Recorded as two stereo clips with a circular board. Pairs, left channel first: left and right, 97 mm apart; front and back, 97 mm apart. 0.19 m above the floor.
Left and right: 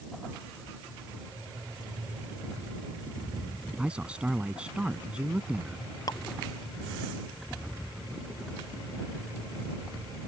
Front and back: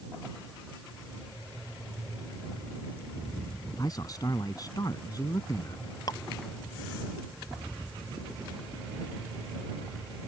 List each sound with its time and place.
3.8 s a man speaking: 15° right
6.1 s dripping: 45° left